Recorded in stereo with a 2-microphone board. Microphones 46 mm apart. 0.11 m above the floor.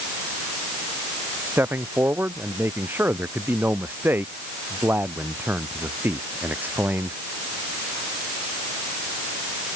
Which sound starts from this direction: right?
A man speaking, at 1.4 s.